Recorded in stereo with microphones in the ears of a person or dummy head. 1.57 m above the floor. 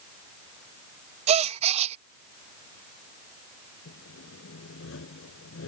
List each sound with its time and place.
1.3 s a gasp: 40° right (ahead or behind)
3.9 s sawing: 75° left (ahead or behind)